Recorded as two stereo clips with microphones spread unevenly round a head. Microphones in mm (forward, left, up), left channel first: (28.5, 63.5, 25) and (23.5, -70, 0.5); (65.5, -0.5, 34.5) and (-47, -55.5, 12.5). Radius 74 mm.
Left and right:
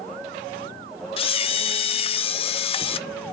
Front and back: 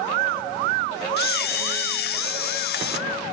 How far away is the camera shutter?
About 0.6 m.